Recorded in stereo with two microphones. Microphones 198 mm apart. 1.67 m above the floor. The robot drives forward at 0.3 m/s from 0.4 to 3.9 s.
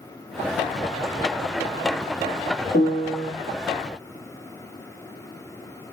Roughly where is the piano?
Left.